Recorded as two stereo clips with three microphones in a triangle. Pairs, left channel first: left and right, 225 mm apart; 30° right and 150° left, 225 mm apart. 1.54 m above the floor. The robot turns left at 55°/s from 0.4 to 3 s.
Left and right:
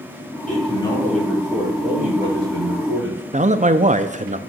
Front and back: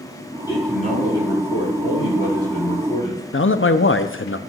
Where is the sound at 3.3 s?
35° right, 0.6 m.